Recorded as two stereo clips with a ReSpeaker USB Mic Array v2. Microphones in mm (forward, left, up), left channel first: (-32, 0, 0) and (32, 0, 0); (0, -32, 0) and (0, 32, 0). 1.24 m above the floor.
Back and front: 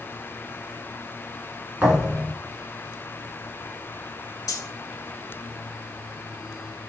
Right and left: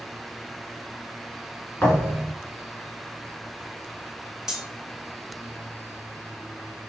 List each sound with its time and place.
1.8 s a thud: 60° right, 1.3 m
4.5 s cutlery clinking: 170° left, 0.7 m